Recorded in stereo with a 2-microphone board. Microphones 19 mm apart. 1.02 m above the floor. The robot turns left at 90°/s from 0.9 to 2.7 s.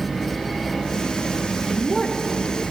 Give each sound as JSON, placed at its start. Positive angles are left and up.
{"t": 1.7, "sound": "a woman speaking", "azimuth_deg": 40, "distance_m": 3.0}